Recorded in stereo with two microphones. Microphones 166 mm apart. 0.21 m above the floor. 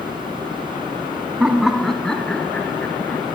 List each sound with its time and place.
1.4 s laughter: 5° right (ahead or behind), 1.5 m; by 3.2 s 10° left (ahead or behind), 2.5 m